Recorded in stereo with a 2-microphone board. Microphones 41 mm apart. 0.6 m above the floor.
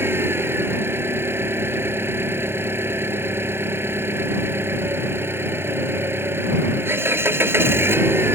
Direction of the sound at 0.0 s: 70° right (ahead or behind).